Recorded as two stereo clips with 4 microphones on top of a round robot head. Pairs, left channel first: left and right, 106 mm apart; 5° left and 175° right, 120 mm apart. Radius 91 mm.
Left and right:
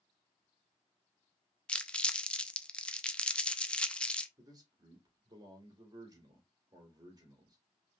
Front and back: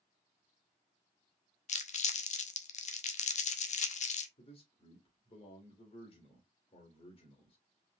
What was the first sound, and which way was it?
Crumpling, 10° left.